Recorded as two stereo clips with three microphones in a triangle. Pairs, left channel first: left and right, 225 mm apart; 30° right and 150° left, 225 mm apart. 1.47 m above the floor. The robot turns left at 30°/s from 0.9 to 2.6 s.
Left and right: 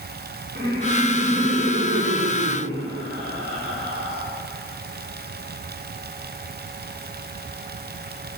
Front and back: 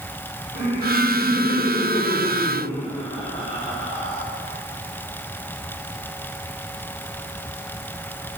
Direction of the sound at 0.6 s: 40° right.